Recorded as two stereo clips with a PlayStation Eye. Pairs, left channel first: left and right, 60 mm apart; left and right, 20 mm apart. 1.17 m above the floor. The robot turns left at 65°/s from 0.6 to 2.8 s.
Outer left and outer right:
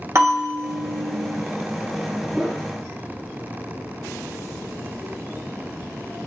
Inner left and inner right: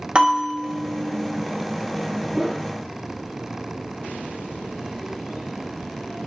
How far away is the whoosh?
About 1.0 m.